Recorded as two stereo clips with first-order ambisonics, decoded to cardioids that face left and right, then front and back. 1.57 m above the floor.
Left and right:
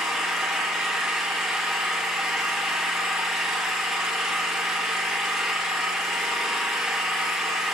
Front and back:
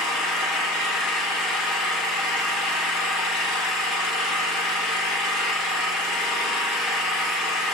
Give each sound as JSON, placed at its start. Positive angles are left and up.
{"t": 0.0, "sound": "an engine running", "azimuth_deg": 10, "distance_m": 2.5}